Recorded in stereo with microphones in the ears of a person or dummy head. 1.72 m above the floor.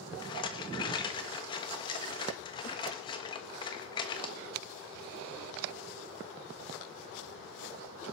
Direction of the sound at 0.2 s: 30° left (ahead or behind).